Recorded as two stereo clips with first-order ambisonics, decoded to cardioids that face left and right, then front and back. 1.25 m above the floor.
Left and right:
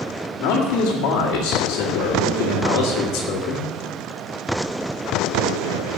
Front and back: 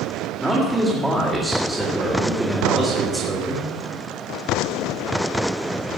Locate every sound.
0.4 s a man speaking: 95° left, 2 m